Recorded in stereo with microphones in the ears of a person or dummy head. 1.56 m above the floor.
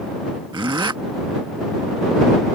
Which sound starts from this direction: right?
A zipper, at 0.5 s.